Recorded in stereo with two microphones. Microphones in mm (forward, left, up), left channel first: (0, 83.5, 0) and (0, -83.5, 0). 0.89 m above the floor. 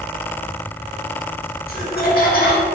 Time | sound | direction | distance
1.7 | laughter | 40° left (ahead or behind) | 0.8 m